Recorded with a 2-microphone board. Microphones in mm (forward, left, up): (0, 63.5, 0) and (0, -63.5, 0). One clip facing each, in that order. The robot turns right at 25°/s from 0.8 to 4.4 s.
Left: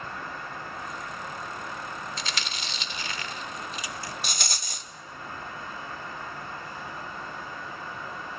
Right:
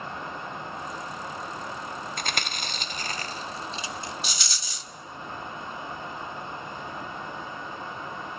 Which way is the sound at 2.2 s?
55° right (ahead or behind).